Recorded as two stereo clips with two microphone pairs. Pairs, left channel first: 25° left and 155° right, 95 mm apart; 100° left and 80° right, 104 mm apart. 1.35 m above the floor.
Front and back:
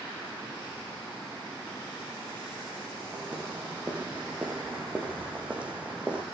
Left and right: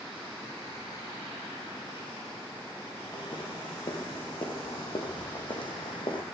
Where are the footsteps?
135° left, 4.5 m; by 6.2 s 130° left, 3 m.